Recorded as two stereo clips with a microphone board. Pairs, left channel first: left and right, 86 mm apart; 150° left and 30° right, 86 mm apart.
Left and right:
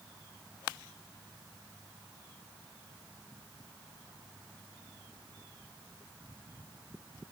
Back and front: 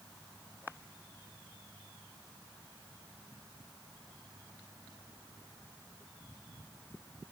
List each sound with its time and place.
Only background noise.